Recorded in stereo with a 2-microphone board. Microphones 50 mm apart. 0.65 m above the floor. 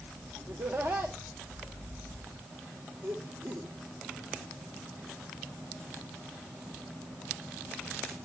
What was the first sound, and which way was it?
Laughter, 60° right (ahead or behind).